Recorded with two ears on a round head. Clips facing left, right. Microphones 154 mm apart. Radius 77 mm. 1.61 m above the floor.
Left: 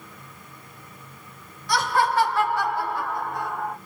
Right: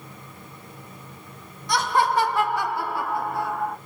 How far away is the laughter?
About 3 m.